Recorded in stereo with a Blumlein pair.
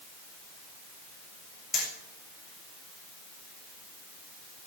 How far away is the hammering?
About 7.5 m.